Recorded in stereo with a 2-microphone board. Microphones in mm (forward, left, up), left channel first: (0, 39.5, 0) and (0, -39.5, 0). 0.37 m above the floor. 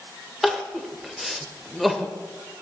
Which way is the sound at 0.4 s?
Centre (ahead or behind).